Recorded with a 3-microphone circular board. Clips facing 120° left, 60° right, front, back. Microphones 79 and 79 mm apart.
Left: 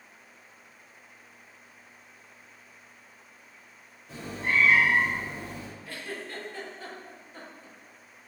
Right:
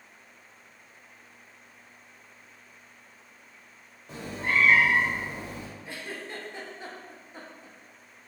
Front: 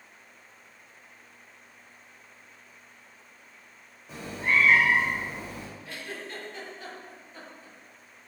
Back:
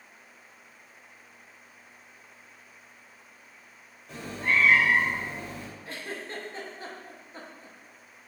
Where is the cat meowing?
80° right, 1.2 m.